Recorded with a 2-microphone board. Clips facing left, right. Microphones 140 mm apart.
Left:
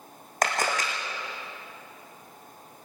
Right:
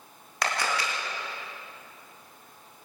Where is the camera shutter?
45° left (ahead or behind), 3.5 m.